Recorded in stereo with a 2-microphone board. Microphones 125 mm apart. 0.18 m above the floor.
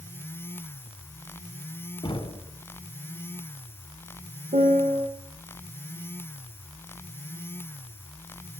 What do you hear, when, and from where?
2.0 s knocking: 40° left (ahead or behind), 0.9 m
4.5 s a piano: 75° right (ahead or behind), 1.7 m